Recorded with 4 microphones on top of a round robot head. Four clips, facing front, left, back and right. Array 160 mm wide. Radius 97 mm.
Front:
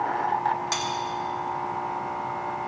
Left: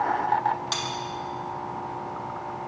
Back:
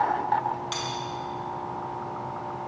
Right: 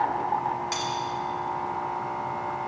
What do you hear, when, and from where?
0.7 s cutlery clinking: 35° left, 2.5 m